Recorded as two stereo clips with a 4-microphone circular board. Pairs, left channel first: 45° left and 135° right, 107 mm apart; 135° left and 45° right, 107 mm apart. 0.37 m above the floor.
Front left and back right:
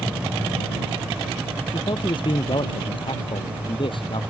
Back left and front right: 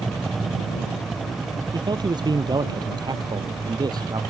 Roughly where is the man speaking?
Ahead.